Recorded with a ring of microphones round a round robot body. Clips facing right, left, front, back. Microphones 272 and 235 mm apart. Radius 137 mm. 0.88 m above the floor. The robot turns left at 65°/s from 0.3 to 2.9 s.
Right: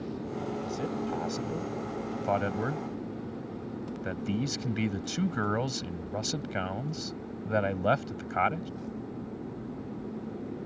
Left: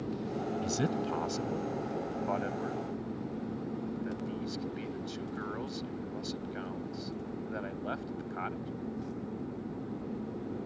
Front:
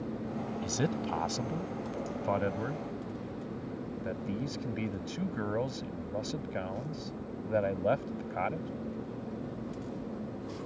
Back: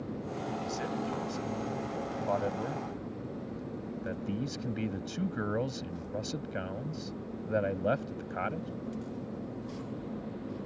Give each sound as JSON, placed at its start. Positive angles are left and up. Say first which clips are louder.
{"t": 0.6, "sound": "a man speaking", "louder": "even, front 5 dB", "azimuth_deg": 50}